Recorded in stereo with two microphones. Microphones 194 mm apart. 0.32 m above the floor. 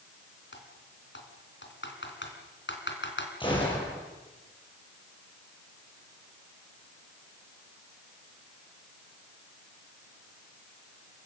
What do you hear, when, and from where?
0.5 s typing on a keyboard: 70° left (ahead or behind), 3.5 m
3.4 s a gunshot: 25° left (ahead or behind), 8 m